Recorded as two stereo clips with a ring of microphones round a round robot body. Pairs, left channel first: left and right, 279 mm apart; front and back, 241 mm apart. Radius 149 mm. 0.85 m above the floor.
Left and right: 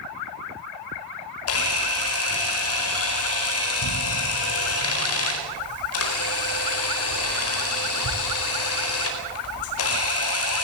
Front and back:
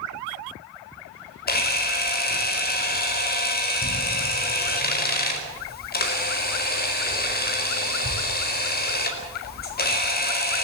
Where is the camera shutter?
50° left, 4.5 m.